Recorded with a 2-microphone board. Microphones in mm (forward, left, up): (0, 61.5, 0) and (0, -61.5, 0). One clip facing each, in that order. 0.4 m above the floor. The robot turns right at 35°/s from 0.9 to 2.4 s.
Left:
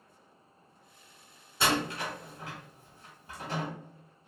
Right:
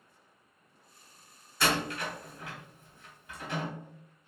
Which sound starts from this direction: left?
A door slam, at 1.6 s.